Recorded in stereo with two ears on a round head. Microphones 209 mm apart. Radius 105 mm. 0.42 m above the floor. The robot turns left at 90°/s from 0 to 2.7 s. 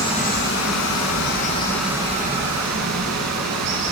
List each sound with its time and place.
0.0 s running water: 165° left, 3 m; by 3.9 s 80° right, 3 m